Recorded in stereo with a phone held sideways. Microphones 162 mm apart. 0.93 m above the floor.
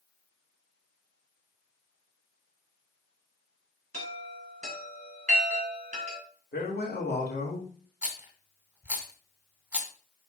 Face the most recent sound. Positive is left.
turn(degrees=-10)  # may be behind; listen again after turning